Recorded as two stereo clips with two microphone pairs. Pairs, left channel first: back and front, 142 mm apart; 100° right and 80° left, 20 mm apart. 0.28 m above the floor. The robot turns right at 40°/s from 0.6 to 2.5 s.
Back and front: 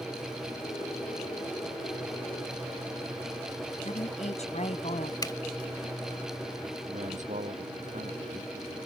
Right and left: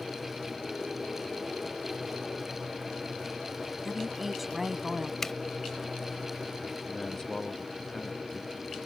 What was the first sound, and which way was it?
A woman speaking, 160° left.